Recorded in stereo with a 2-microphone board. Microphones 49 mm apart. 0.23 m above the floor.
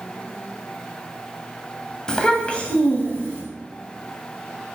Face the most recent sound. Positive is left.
turn(degrees=30)  # may be behind; listen again after turning